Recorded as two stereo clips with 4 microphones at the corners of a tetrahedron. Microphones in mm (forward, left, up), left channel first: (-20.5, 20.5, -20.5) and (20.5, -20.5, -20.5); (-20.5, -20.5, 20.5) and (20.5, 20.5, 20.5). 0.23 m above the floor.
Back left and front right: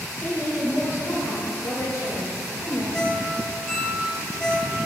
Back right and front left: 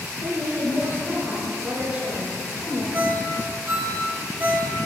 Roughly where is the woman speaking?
Left.